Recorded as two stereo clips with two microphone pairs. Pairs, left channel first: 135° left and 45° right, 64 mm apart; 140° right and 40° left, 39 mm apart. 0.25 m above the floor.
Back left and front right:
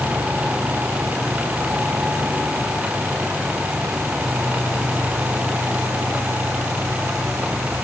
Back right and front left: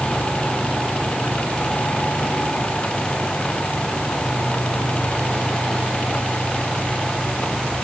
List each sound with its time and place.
Only background noise.